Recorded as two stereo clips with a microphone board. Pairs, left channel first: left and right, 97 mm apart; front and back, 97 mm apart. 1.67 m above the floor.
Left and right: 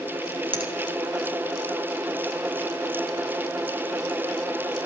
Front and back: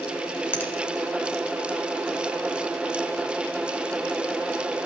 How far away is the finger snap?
About 1.8 m.